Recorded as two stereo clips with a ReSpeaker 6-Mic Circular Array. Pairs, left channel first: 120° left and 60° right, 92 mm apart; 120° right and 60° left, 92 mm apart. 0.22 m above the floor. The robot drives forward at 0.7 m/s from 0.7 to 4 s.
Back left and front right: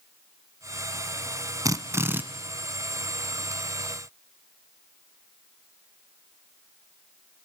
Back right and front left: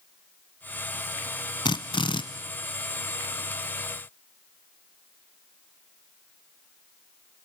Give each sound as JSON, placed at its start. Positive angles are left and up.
{"t": 1.6, "sound": "a drill", "azimuth_deg": -100, "distance_m": 0.9}